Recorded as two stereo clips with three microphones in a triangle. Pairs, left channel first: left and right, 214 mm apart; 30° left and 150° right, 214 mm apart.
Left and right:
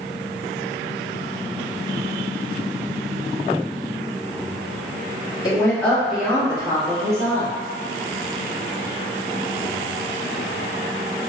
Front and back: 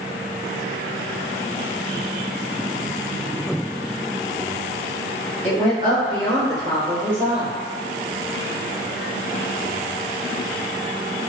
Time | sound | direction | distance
5.4 | a woman speaking | 160° left | 1.4 m